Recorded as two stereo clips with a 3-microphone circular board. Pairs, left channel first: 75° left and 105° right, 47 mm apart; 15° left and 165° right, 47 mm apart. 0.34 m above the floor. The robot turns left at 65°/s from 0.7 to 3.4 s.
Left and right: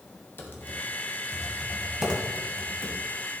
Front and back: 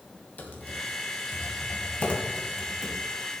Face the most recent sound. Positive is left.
turn(degrees=-120)